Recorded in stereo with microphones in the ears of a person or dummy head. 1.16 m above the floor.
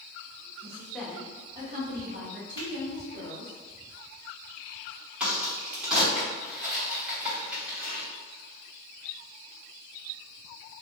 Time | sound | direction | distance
0.6 | a woman speaking | 15° left (ahead or behind) | 0.7 m
2.6 | a finger snap | 25° left (ahead or behind) | 1.2 m
5.2 | a crack | 5° right (ahead or behind) | 1.1 m